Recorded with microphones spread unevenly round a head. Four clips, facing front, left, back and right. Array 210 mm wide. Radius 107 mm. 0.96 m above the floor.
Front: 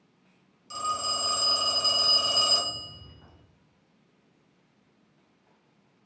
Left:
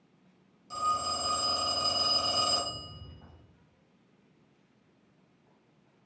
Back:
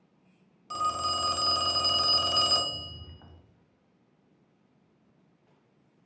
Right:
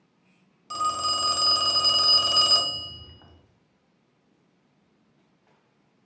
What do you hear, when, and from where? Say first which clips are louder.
0.7 s a phone ringing: right 4 dB, back 2 dB; 105° right, 0.6 m